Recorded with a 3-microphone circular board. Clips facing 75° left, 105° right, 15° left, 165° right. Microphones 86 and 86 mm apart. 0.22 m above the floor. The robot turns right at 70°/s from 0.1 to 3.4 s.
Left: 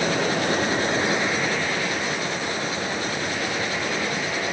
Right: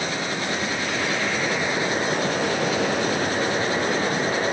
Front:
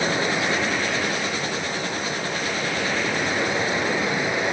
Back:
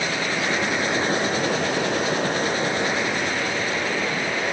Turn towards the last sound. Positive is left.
turn(degrees=-55)